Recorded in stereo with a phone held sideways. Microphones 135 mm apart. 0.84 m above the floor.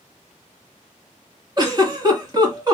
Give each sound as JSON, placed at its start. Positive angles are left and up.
{"t": 1.6, "sound": "a giggle", "side_deg": -30, "distance_m": 1.7}